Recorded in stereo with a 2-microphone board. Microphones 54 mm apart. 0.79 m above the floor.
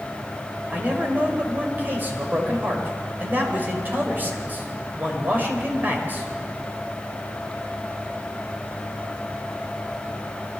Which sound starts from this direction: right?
A man speaking, at 0.7 s.